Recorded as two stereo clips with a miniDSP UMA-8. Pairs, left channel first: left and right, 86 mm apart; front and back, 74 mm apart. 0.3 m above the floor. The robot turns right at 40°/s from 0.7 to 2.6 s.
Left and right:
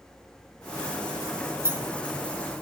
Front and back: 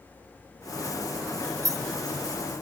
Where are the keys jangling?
150° right, 2 m; by 2.1 s 125° right, 2 m.